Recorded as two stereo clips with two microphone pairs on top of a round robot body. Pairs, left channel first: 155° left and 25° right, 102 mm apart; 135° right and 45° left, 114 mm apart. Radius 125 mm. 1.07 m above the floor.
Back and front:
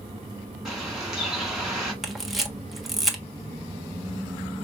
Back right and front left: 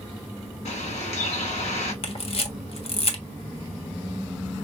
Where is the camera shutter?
115° right, 1.2 m.